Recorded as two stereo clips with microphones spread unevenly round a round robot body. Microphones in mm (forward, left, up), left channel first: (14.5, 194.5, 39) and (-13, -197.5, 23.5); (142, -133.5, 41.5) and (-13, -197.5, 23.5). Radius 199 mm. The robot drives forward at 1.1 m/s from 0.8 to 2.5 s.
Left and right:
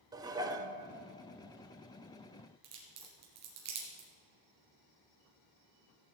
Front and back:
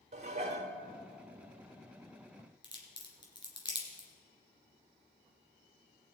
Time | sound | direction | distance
0.1 | dishes clattering | 170° right | 0.6 m
2.6 | a crack | 40° right | 3 m